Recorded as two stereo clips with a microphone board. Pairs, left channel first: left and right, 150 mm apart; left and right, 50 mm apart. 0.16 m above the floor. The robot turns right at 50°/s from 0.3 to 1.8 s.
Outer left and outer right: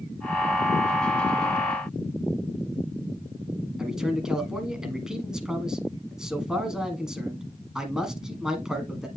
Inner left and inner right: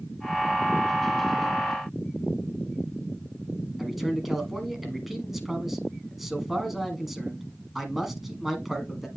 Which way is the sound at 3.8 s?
5° right (ahead or behind).